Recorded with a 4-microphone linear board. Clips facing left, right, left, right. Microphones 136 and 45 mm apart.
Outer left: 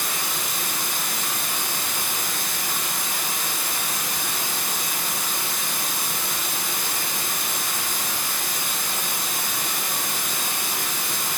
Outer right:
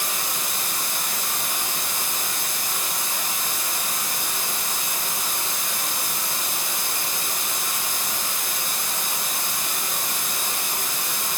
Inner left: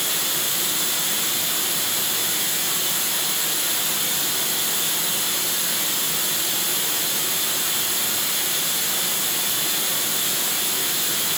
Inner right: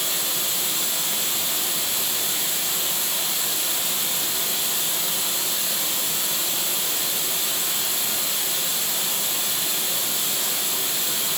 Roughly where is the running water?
Left.